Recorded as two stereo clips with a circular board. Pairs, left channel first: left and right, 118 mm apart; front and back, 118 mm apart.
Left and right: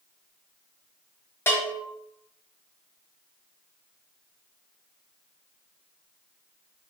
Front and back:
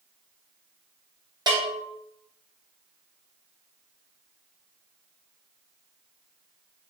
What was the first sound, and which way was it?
A bell, 150° left.